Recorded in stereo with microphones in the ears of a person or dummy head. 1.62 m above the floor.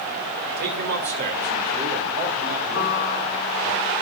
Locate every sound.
0.6 s a man speaking: 55° right (ahead or behind), 2.0 m; by 3.7 s 30° right (ahead or behind), 4 m
2.7 s a piano: 30° left (ahead or behind), 7 m